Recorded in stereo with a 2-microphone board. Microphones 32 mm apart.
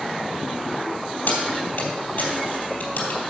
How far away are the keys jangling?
About 3.5 m.